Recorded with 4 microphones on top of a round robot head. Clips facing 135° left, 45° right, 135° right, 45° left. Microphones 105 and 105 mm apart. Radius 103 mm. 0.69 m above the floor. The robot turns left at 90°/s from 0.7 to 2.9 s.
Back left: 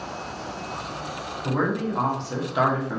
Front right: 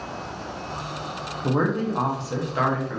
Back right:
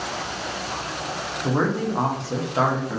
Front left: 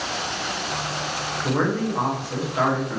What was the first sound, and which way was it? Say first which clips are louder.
A man speaking: front right 2 dB, even; 55° right.